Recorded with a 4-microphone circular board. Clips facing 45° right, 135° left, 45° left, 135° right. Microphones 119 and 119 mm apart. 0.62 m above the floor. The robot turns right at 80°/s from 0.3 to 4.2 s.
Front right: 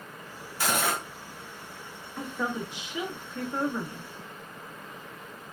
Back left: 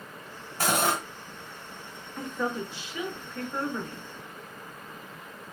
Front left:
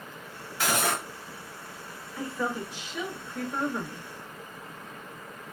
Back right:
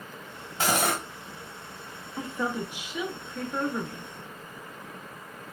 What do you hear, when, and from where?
0.6 s cutlery clinking: 170° left, 1.5 m; by 1.0 s 155° right, 1.5 m
2.2 s a woman speaking: 130° right, 0.7 m; by 4.1 s 25° left, 0.7 m